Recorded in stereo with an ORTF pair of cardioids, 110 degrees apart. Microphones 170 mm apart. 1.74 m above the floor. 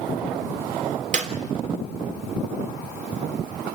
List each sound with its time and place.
1.1 s a clap: 50° right, 3.5 m